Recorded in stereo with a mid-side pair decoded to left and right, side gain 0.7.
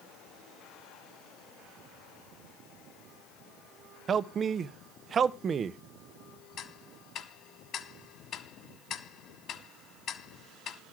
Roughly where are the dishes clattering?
No dishes clattering in this recording.